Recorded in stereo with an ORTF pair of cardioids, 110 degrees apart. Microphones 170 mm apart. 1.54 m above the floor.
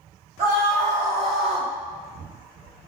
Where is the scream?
45° right, 2 m; by 1.7 s 30° right, 4 m.